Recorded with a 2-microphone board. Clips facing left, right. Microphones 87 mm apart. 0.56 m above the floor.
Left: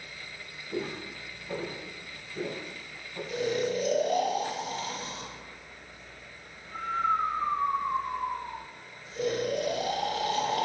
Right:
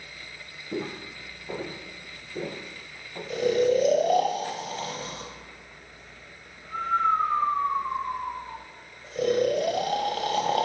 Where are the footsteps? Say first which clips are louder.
Right 2 dB; 65° right (ahead or behind), 1.8 m; by 3.2 s 55° right (ahead or behind), 2.5 m.